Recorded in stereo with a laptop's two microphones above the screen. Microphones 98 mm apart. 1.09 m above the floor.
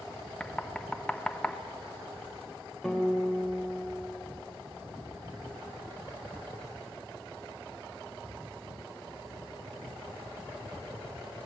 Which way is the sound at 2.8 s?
Centre (ahead or behind).